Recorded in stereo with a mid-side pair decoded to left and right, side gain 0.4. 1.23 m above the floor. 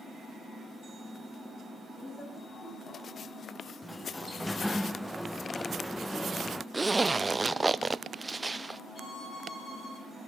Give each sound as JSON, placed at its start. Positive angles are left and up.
{"t": 2.0, "sound": "a woman speaking", "azimuth_deg": 40, "distance_m": 9.0}
{"t": 3.8, "sound": "a sliding door", "azimuth_deg": 5, "distance_m": 0.6}
{"t": 6.7, "sound": "a zipper", "azimuth_deg": -20, "distance_m": 0.9}
{"t": 8.9, "sound": "a violin", "azimuth_deg": 35, "distance_m": 9.5}